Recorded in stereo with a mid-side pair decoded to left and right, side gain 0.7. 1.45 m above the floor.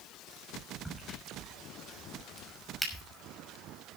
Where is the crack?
5° right, 5.5 m.